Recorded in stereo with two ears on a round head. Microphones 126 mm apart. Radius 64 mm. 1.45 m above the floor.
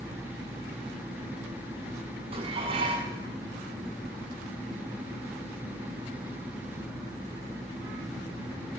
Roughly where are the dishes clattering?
Right.